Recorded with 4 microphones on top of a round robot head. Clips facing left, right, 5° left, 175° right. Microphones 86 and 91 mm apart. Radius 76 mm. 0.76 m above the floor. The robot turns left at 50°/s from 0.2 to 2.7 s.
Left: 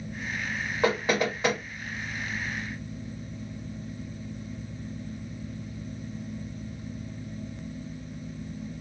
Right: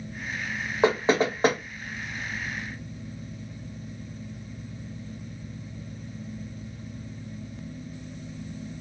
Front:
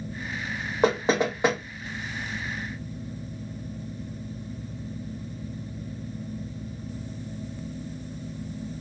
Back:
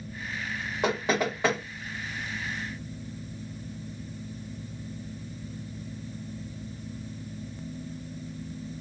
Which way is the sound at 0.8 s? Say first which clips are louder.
Right 4 dB, front 4 dB; 30° right.